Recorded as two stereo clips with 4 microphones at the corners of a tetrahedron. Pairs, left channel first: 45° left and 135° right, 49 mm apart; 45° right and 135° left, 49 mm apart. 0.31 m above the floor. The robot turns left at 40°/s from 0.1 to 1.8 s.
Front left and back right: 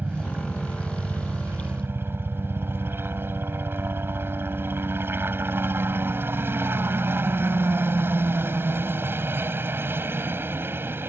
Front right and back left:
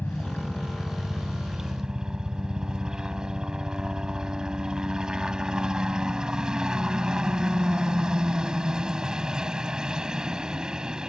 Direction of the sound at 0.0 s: 85° right.